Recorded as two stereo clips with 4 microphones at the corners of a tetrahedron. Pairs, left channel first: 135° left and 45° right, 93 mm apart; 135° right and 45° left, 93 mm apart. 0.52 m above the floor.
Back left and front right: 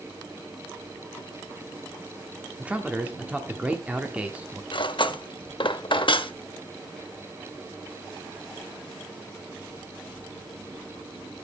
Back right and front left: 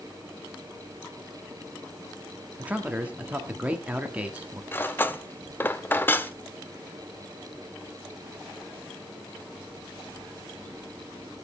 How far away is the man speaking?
About 1.3 m.